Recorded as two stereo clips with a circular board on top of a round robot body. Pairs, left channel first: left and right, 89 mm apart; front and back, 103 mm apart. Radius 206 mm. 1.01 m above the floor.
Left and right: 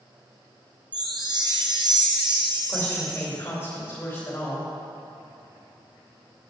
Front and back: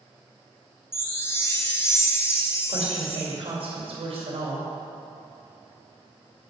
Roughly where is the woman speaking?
Behind left.